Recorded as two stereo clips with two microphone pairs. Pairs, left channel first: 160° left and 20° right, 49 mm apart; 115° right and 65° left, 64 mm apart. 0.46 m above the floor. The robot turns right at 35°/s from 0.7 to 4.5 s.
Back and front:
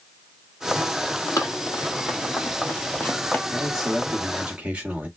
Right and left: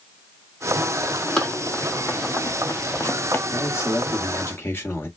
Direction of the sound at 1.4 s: 170° left.